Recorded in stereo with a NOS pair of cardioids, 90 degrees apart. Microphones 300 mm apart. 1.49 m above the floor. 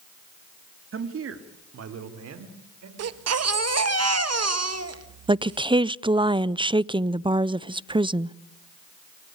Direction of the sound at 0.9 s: 45° right.